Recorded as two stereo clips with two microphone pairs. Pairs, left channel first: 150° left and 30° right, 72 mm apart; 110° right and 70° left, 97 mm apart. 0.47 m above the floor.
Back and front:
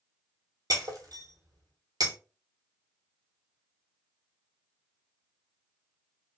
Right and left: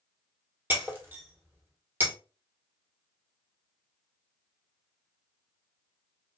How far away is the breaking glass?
About 1.2 m.